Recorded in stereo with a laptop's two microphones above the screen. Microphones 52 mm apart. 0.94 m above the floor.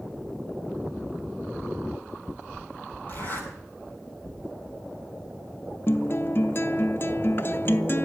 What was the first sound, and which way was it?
A zipper, 40° left (ahead or behind).